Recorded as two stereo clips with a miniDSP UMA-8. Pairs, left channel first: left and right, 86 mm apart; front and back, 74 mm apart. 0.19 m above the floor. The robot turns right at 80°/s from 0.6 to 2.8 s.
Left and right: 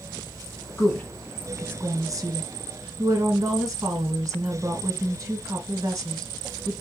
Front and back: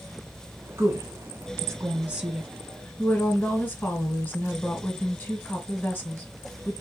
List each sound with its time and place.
0.8 s a woman speaking: 140° left, 1.5 m; by 6.7 s 55° right, 1.5 m